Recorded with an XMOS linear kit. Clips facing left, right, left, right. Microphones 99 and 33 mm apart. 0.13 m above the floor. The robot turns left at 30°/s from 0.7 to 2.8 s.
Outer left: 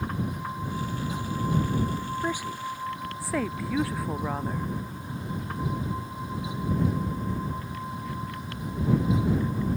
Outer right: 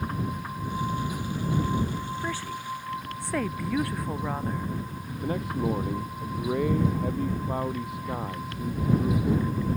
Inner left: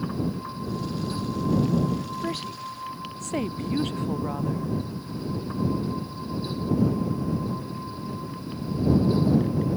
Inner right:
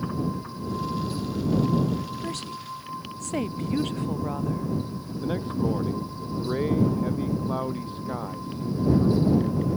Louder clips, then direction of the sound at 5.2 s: Outer right 6 dB, inner right 2 dB; 80° right.